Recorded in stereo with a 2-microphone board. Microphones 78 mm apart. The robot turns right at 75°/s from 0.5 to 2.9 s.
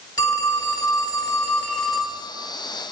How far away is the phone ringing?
About 1.3 m.